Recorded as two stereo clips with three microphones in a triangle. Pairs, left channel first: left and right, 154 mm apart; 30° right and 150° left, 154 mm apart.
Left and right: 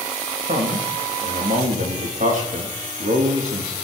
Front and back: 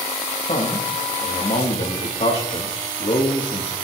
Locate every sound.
0.5 s a man speaking: 65° right, 4.5 m